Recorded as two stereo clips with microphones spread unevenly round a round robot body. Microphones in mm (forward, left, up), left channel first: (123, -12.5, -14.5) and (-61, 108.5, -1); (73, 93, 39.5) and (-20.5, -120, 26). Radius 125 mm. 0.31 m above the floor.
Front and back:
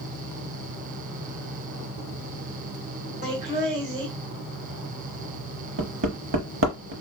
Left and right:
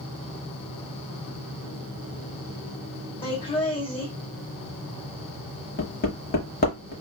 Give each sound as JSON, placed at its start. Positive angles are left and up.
{"t": 3.2, "sound": "laughter", "azimuth_deg": 120, "distance_m": 1.6}
{"t": 5.8, "sound": "hammering", "azimuth_deg": 120, "distance_m": 0.8}